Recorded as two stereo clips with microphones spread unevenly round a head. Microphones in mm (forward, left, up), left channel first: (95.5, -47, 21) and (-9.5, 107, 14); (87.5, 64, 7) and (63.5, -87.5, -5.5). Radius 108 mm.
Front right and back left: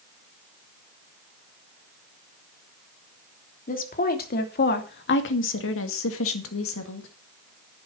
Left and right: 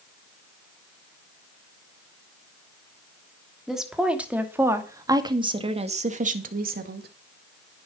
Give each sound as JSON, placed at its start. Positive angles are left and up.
{"t": 3.7, "sound": "a woman speaking", "azimuth_deg": -10, "distance_m": 3.5}